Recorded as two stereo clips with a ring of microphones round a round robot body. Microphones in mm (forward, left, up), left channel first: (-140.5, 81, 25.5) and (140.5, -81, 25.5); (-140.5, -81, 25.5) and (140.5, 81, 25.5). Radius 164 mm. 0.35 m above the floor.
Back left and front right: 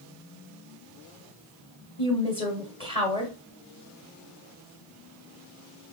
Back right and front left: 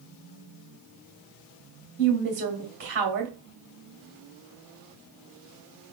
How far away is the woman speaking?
About 2 m.